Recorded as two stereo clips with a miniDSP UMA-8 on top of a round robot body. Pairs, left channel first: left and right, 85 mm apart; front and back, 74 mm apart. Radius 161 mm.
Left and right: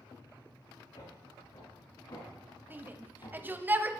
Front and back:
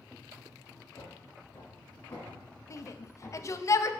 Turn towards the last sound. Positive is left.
turn(degrees=-30)